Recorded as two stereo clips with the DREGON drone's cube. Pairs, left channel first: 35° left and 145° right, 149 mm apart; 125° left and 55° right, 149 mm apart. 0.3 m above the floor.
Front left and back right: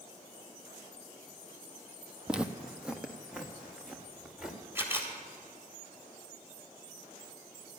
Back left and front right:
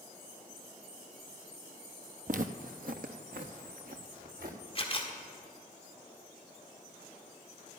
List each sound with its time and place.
2.3 s footsteps: 60° right, 0.6 m
4.8 s a camera shutter: 145° left, 1.9 m